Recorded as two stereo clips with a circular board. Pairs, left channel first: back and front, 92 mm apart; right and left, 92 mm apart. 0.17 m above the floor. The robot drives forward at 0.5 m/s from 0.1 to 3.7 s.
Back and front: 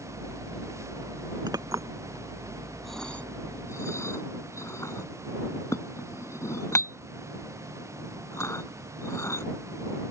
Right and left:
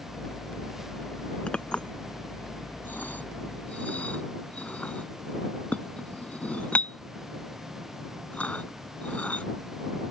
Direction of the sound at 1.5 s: 15° right.